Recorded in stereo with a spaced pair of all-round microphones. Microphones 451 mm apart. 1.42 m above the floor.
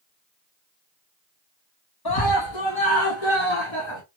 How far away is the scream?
About 1.0 m.